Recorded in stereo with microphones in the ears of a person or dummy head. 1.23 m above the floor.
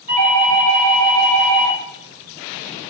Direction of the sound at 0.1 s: 35° right (ahead or behind).